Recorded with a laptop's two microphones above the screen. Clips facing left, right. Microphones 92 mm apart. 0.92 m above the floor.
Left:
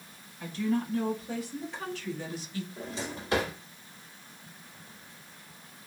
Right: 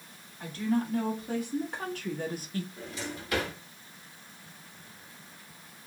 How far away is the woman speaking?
About 2 m.